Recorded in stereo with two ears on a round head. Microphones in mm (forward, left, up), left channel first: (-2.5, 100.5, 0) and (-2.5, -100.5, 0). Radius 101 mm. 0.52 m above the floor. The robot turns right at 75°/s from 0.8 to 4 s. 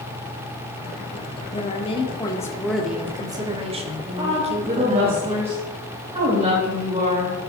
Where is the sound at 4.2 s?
30° right (ahead or behind), 3.5 m.